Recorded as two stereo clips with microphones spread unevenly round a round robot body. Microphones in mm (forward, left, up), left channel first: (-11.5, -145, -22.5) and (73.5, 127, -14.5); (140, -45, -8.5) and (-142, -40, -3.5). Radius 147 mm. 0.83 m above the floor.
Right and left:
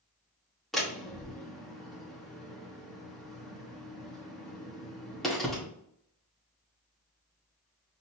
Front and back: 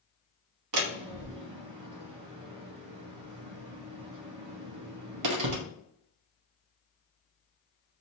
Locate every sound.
0.7 s a door slam: 165° left, 1.0 m